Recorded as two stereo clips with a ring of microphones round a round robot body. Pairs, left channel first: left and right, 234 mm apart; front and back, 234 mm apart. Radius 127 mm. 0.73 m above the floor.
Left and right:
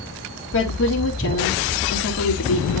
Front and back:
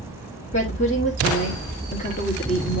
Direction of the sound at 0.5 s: 60° left.